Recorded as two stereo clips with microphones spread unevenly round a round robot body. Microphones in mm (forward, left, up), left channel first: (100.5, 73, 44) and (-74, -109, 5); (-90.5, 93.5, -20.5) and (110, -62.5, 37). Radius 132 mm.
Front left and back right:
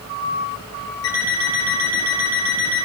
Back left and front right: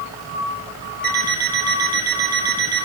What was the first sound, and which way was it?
An alarm clock, 15° left.